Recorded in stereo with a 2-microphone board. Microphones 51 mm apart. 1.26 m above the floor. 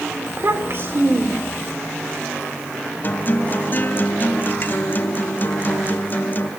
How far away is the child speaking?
About 3 m.